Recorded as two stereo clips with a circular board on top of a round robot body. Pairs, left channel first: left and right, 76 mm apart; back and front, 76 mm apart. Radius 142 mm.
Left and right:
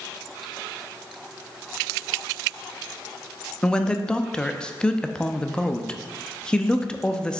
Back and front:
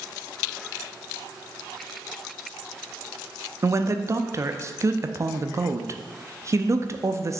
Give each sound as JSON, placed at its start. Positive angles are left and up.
{"t": 3.6, "sound": "a man speaking", "azimuth_deg": 20, "distance_m": 0.7}